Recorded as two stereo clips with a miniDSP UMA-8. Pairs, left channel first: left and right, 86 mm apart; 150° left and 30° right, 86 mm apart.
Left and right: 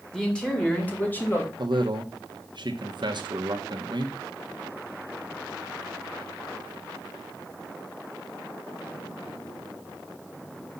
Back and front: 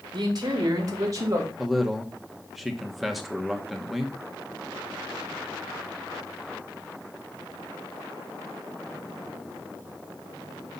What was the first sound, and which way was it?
A man speaking, 5° left.